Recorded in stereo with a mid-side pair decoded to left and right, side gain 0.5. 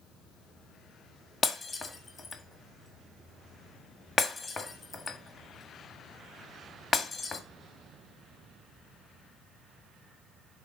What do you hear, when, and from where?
1.4 s breaking glass: 35° left, 1.6 m